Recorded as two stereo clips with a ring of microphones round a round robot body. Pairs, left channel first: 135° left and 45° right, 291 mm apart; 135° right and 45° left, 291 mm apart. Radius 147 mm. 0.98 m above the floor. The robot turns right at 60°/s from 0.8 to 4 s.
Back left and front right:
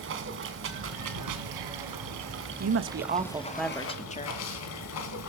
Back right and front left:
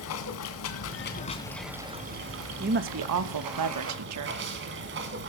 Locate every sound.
0.0 s running water: 95° right, 2.5 m; by 5.3 s 95° left, 2.5 m
2.6 s a woman speaking: 15° right, 1.3 m; by 4.4 s 70° left, 1.3 m